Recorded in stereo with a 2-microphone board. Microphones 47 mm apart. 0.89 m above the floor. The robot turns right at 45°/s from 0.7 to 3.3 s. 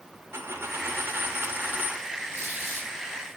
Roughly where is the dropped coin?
Right.